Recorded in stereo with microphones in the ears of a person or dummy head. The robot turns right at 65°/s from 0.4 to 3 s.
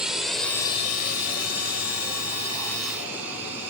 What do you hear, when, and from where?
0.0 s a drone: 5° right (ahead or behind); by 3.7 s 10° right (ahead or behind)